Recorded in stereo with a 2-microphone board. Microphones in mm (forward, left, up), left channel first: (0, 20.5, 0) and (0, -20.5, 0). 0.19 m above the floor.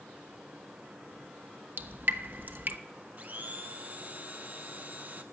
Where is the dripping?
50° right (ahead or behind), 0.9 m.